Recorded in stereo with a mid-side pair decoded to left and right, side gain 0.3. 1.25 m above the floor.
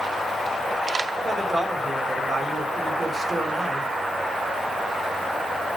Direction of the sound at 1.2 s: 40° right.